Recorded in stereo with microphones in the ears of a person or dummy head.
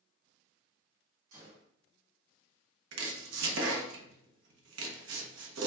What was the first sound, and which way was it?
A gunshot, 35° right (ahead or behind).